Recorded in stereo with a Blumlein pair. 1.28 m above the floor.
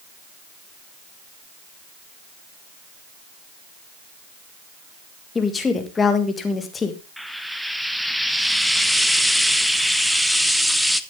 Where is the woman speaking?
15° left, 1.7 m.